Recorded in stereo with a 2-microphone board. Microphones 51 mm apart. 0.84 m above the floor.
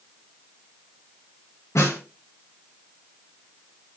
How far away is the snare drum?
About 3 m.